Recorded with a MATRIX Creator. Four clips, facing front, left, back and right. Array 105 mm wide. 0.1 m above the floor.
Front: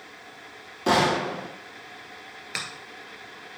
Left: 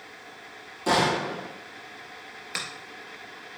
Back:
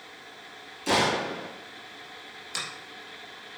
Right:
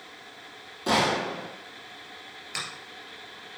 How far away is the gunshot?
About 2.5 m.